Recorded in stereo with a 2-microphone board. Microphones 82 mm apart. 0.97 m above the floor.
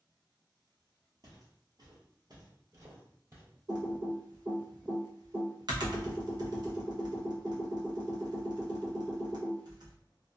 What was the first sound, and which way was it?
Footsteps, 50° right (ahead or behind).